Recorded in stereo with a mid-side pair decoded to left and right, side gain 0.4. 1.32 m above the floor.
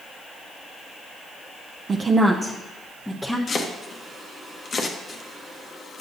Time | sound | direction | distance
1.9 | a woman speaking | 45° right | 0.6 m
3.5 | chopping | 50° left | 1.0 m